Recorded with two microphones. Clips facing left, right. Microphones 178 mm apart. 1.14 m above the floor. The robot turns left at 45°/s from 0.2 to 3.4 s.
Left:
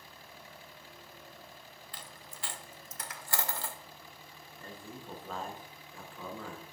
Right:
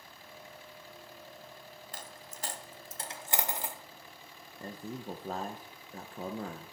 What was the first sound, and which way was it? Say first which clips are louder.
A dropped coin: right 3 dB; 45° right (ahead or behind).